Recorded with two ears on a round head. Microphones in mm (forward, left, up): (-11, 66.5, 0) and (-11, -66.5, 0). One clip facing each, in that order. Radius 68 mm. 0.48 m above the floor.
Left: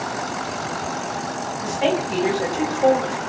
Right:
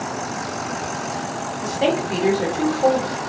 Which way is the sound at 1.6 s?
35° right (ahead or behind).